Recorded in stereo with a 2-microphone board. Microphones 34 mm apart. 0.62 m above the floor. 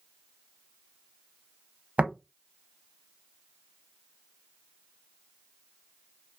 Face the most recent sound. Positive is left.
turn(degrees=-45)  # may be behind; listen again after turning